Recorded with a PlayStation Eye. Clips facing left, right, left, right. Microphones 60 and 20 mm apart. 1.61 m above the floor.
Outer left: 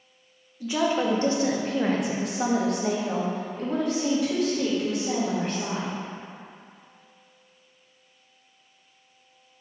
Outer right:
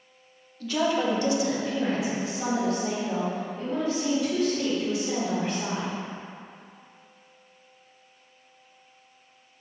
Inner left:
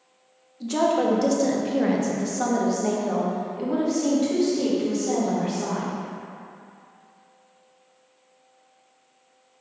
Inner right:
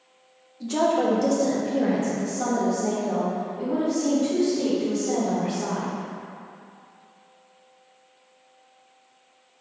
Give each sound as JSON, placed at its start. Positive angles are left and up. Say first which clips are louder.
{"t": 0.6, "sound": "a woman speaking", "louder": "outer left 1 dB, even", "side_deg": 15, "distance_m": 1.0}